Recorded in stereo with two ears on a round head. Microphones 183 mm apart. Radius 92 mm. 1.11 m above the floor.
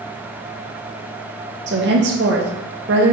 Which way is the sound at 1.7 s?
55° right (ahead or behind).